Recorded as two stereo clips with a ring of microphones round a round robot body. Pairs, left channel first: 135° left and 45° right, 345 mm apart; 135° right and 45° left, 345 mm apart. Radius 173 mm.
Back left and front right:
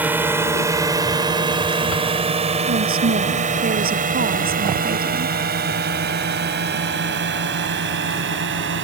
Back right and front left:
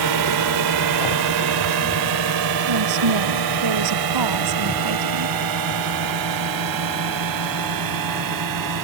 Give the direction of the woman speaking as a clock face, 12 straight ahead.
11 o'clock.